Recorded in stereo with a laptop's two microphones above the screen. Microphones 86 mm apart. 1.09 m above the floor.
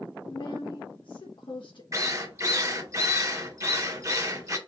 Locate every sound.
0.3 s a woman speaking: 70° left (ahead or behind), 1.2 m
1.9 s a drill: 35° right (ahead or behind), 1.7 m